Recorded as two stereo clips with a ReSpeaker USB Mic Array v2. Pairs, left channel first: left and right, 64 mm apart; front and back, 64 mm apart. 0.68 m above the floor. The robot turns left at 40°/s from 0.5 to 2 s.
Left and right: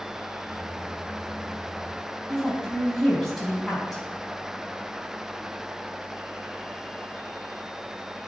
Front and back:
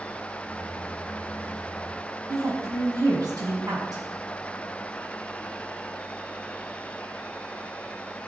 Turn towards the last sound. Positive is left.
turn(degrees=175)